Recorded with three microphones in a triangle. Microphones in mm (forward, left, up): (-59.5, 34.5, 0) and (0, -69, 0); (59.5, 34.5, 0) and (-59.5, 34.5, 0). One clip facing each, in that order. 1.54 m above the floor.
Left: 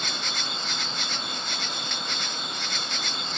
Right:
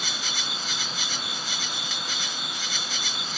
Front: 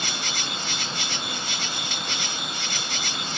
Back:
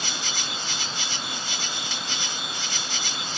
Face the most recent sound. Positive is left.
turn(degrees=25)